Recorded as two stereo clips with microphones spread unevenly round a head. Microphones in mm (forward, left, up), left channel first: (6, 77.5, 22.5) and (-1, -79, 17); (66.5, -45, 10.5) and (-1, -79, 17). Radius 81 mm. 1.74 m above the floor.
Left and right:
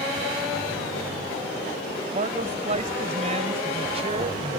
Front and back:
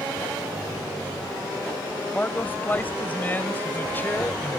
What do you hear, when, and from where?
2.1 s a man speaking: 40° right; by 4.6 s 35° right